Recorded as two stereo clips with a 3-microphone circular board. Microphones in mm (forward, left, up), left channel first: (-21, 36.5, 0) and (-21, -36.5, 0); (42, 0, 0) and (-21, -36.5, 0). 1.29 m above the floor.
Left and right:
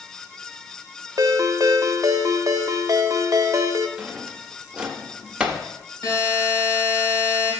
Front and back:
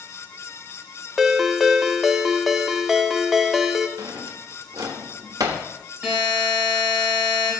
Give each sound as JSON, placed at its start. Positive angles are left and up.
{"t": 1.2, "sound": "a ringtone", "azimuth_deg": -60, "distance_m": 0.6}
{"t": 4.0, "sound": "a drawer", "azimuth_deg": -165, "distance_m": 0.9}
{"t": 6.0, "sound": "a buzzer", "azimuth_deg": 130, "distance_m": 3.5}